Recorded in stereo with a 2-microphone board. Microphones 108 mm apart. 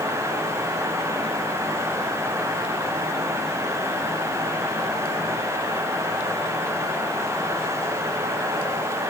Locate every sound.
Only background noise.